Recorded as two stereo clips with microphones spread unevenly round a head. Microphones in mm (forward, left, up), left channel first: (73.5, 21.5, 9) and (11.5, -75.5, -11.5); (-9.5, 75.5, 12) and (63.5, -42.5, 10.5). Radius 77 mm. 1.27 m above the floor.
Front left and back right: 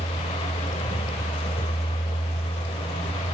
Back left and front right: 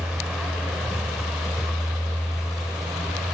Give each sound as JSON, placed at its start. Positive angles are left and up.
{"t": 0.0, "sound": "a vehicle", "azimuth_deg": 30}